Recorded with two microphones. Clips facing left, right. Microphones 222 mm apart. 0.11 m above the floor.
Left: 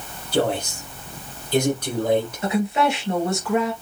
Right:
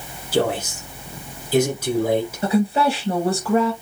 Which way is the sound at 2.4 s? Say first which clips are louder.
Right 2 dB; 35° right (ahead or behind).